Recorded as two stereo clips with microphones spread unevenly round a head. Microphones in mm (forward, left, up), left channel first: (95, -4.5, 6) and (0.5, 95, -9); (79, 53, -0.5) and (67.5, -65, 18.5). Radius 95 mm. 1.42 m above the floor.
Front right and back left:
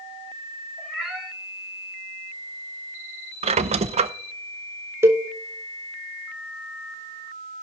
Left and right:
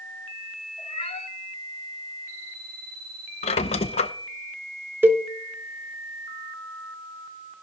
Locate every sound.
0.8 s a cat meowing: 45° left, 3 m
3.4 s a squeak: 115° left, 0.6 m
5.0 s a cowbell: 155° right, 0.6 m